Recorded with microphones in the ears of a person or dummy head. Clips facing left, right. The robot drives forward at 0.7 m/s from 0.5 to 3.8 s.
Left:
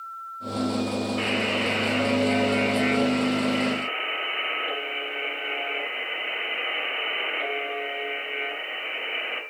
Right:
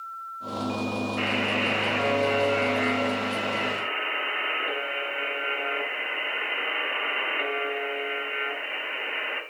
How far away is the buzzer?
About 7.5 m.